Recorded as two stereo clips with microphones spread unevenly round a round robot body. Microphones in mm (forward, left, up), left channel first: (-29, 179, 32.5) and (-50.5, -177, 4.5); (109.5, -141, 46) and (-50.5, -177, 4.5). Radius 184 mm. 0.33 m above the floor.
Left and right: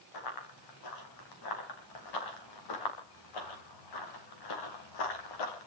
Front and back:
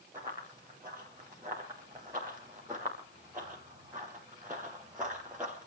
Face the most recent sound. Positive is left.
turn(degrees=105)